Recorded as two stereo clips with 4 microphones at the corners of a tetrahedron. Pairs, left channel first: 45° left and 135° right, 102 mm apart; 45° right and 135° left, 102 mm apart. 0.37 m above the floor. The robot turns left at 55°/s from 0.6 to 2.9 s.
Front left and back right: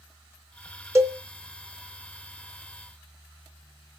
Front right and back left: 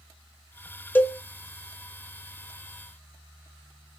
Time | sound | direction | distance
0.9 | a cowbell | 95° right | 0.5 m